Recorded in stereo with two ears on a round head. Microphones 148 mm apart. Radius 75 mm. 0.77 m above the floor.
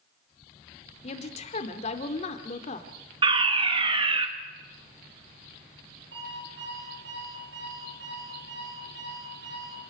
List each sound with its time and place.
1.0 s a woman speaking: 45° left (ahead or behind), 2.5 m
3.2 s a fire alarm: 30° right (ahead or behind), 1.9 m
6.1 s an alarm clock: 70° right (ahead or behind), 9 m